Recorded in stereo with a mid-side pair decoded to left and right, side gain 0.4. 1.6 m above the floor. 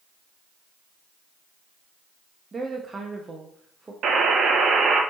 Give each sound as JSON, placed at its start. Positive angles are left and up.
{"t": 2.5, "sound": "a woman speaking", "azimuth_deg": -30, "distance_m": 0.6}
{"t": 4.0, "sound": "a buzzer", "azimuth_deg": -70, "distance_m": 0.6}